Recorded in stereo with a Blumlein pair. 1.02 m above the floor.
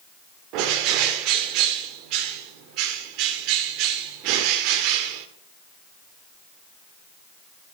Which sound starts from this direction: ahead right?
A bird, at 0.5 s.